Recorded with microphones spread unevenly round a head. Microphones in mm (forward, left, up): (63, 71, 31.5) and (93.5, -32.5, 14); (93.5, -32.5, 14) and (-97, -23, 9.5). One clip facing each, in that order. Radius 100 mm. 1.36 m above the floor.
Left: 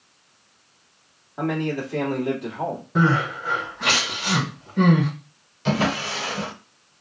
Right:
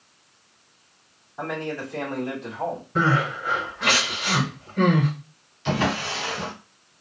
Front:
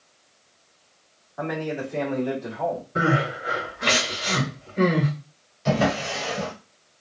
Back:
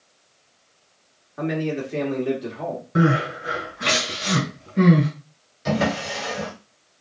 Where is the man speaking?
125° left, 1.8 m.